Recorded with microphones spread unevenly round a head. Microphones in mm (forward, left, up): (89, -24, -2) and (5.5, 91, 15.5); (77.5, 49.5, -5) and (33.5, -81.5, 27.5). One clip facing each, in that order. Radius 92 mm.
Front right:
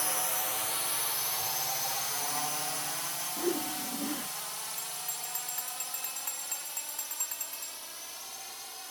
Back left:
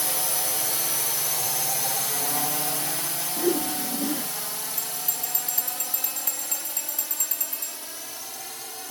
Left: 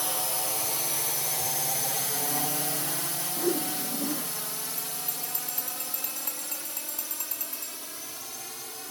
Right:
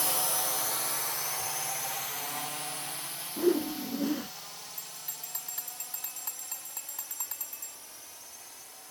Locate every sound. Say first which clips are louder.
0.0 s a drone: back left 4 dB, left 1 dB; 135° left; by 8.9 s 95° left
3.4 s a whoosh: back left 8 dB, right 3 dB; straight behind
4.8 s a bell: back left 7 dB, left 11 dB; 160° left